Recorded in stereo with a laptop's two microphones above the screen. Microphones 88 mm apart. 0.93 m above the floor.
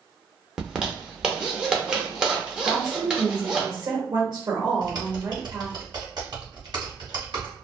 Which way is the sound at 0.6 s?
10° right (ahead or behind).